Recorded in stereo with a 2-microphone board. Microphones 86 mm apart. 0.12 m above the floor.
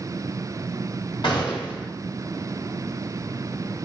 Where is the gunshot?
60° left (ahead or behind), 2.0 m.